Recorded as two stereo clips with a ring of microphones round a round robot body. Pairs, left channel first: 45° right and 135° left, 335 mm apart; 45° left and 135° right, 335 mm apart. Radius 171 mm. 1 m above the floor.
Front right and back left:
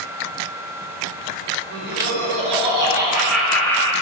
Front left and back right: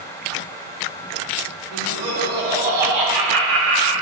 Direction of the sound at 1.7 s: 165° right.